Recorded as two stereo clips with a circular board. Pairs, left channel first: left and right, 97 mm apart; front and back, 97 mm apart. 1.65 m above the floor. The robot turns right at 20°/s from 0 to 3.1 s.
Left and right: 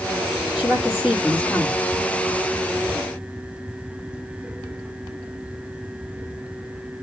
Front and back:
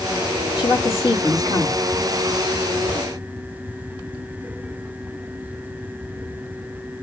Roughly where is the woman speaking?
Ahead.